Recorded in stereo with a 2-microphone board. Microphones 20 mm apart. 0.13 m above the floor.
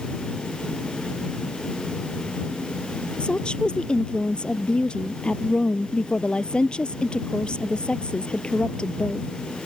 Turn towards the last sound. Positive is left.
turn(degrees=55)  # may be behind; listen again after turning